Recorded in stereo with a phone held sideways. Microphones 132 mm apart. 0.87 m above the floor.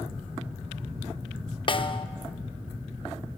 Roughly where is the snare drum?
Left.